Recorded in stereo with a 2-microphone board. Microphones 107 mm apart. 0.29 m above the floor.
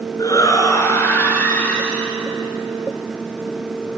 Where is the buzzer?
No buzzer in this recording.